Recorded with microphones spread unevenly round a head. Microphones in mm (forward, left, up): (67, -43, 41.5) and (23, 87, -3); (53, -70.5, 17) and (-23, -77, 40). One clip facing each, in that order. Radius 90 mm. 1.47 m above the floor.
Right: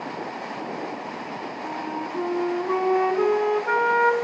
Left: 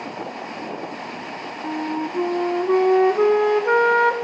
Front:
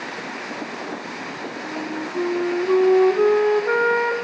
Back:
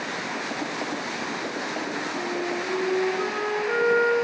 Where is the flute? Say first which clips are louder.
Left 7 dB, front 2 dB; 50° left, 0.7 m.